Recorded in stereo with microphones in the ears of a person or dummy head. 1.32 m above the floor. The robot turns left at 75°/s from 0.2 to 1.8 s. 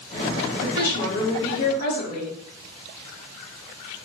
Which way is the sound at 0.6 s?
145° left.